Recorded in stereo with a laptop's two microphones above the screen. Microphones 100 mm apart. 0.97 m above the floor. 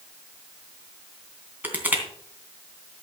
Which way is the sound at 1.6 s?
15° right (ahead or behind).